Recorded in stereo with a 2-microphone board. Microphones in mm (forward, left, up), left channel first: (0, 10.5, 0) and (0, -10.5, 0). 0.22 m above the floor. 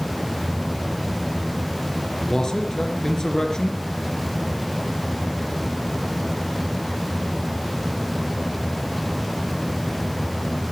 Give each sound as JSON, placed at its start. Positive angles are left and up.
{"t": 2.3, "sound": "a man speaking", "side_deg": 30, "distance_m": 3.0}